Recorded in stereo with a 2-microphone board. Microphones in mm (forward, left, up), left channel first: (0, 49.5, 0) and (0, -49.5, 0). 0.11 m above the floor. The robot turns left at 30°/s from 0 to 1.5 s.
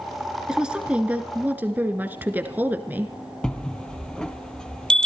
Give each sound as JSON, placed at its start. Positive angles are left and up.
{"t": 0.5, "sound": "a woman speaking", "side_deg": -5, "distance_m": 1.1}
{"t": 3.4, "sound": "a bell", "side_deg": 10, "distance_m": 0.7}